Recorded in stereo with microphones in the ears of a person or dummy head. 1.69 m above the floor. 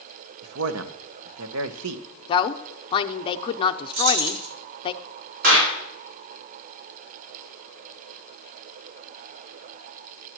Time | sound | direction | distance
0.4 | a man speaking | 85° right | 0.9 m
2.3 | a woman speaking | 25° left (ahead or behind) | 0.6 m
3.9 | keys jangling | 80° right | 3.5 m
5.4 | a clap | 55° right (ahead or behind) | 5 m